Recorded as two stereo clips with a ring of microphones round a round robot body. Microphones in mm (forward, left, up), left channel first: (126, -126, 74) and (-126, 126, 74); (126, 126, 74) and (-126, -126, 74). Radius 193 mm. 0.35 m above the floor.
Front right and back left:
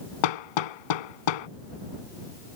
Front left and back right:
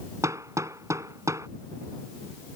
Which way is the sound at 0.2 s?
55° right.